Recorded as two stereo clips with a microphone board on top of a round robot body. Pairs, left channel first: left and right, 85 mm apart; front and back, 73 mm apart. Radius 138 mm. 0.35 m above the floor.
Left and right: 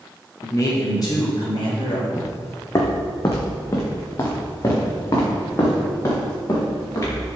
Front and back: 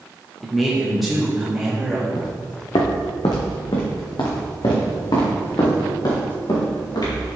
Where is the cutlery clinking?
I don't hear cutlery clinking.